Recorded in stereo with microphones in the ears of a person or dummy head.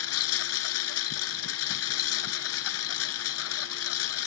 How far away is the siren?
No siren in this recording.